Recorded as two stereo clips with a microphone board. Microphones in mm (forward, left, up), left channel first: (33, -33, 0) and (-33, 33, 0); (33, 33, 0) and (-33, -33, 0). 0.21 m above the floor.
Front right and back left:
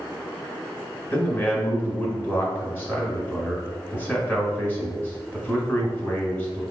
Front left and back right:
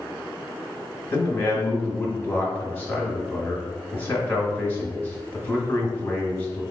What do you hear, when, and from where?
1.1 s a man speaking: straight ahead, 1.2 m